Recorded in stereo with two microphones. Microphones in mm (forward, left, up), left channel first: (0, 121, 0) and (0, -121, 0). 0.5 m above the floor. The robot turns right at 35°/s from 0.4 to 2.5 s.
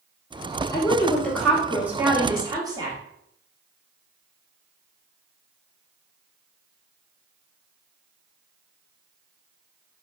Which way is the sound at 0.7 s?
15° left (ahead or behind).